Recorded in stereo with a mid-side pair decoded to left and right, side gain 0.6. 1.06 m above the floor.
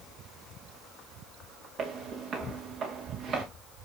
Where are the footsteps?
50° right, 5 m.